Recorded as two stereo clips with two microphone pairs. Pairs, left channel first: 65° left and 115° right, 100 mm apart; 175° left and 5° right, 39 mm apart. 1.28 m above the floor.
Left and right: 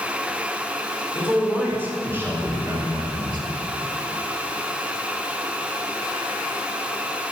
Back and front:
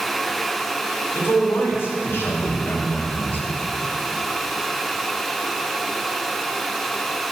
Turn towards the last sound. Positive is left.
turn(degrees=-155)